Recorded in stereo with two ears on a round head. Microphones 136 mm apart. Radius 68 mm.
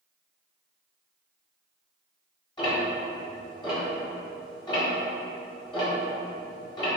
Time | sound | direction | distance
2.6 | ticking | 30° left (ahead or behind) | 2.0 m